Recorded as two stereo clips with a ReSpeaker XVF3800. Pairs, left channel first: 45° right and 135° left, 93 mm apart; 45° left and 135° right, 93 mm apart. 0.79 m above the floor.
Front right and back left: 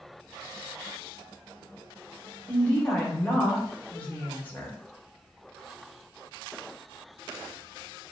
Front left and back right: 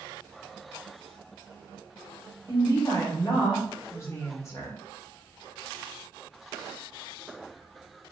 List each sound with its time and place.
2.5 s a woman speaking: 15° left, 0.8 m